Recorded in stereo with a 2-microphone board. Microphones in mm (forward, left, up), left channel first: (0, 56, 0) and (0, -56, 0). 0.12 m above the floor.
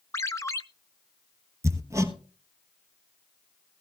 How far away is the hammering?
About 1.1 m.